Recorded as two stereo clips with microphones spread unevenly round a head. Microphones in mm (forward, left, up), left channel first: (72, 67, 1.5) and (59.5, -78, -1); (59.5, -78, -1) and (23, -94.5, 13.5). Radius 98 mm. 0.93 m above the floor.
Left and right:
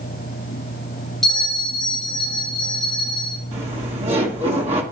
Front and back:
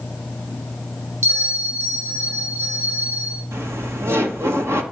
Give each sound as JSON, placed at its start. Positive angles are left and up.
{"t": 1.2, "sound": "a bell", "azimuth_deg": 175, "distance_m": 2.5}
{"t": 3.5, "sound": "laughter", "azimuth_deg": -145, "distance_m": 1.5}